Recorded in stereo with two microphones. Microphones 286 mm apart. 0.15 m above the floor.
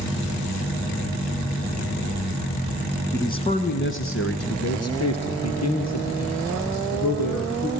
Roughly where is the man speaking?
Centre.